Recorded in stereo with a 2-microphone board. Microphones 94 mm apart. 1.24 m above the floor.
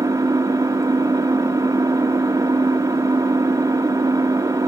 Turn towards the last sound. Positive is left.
turn(degrees=-35)  # may be behind; listen again after turning